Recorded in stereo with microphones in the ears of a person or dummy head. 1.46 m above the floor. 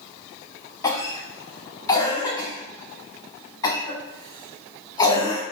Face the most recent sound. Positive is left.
turn(degrees=20)  # may be behind; listen again after turning